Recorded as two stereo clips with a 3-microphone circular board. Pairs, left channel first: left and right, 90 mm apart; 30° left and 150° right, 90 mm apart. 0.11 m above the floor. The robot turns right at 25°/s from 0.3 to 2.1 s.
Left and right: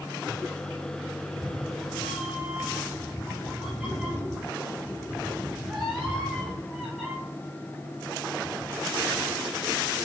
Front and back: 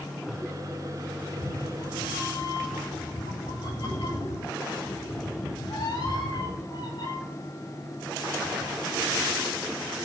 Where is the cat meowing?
20° right, 5.5 m; by 7.1 s straight ahead, 5.5 m.